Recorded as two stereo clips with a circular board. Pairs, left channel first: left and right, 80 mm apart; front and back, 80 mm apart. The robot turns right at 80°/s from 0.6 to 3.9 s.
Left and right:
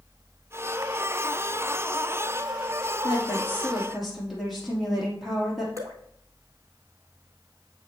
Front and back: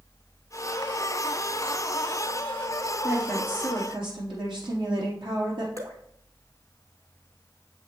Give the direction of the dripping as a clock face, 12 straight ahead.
5 o'clock.